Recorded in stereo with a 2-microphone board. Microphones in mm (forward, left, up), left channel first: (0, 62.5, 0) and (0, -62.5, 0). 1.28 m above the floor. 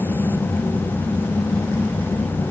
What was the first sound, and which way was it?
Only background noise.